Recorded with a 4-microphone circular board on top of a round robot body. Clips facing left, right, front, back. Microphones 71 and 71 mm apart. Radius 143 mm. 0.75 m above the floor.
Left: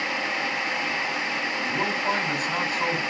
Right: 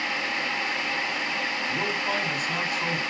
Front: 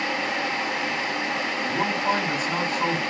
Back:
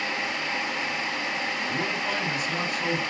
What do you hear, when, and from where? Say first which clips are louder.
1.7 s a man speaking: left 4 dB, front 8 dB; 50° left, 5.5 m